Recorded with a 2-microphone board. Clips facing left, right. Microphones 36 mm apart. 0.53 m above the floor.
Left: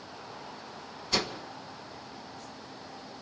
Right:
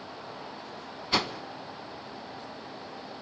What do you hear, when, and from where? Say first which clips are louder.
1.1 s a whoosh: right 3 dB; 30° right (ahead or behind), 1.6 m